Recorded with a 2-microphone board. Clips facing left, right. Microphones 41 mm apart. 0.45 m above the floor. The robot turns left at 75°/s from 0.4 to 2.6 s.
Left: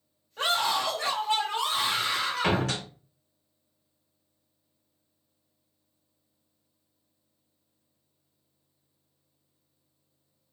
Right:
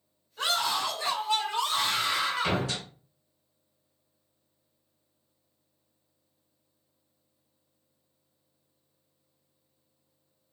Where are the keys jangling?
No keys jangling in this recording.